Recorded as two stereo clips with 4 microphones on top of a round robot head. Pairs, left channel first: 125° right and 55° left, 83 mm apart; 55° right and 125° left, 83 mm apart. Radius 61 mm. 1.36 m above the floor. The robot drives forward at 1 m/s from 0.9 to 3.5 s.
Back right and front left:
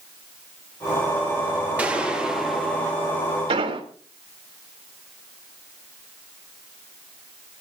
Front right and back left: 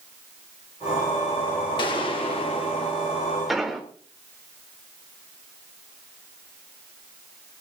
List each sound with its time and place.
1.8 s a gunshot: 20° right, 2.0 m; by 2.9 s 45° right, 1.1 m
3.5 s an explosion: 40° left, 3 m